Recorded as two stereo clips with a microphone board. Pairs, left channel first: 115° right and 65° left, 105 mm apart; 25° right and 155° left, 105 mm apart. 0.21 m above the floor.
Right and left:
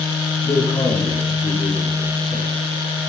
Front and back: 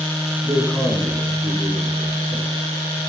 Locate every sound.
0.4 s a man speaking: 115° right, 2 m; by 2.6 s 145° right, 4 m